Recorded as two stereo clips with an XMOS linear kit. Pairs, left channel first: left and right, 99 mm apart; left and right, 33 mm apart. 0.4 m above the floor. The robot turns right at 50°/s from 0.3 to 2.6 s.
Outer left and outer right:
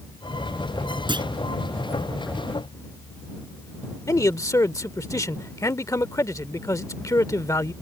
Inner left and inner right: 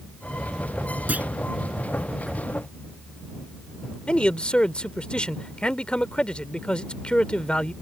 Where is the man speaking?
35° left (ahead or behind).